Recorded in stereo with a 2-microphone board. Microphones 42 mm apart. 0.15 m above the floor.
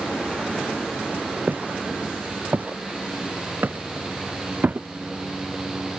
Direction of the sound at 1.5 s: 40° right (ahead or behind).